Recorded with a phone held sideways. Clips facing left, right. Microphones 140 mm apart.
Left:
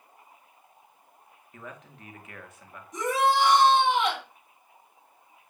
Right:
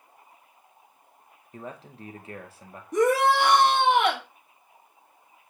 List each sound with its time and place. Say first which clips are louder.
1.5 s a man speaking: right 5 dB; 30° right (ahead or behind), 1.9 m
2.9 s a shout: right 4 dB; 65° right (ahead or behind), 3 m